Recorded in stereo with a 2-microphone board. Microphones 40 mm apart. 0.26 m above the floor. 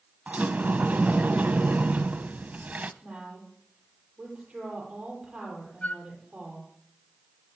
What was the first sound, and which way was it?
A sliding door, 45° right (ahead or behind).